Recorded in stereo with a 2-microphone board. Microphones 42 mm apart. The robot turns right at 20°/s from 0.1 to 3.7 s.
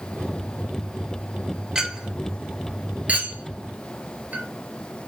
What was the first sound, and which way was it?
A clink, 15° right (ahead or behind).